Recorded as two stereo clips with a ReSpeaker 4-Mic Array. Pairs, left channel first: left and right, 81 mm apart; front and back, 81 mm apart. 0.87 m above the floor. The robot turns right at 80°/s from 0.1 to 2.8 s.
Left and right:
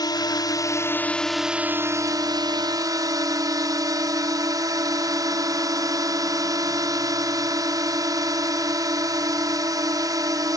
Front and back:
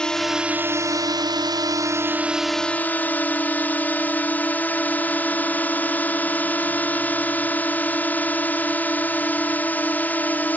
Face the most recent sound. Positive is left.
turn(degrees=-65)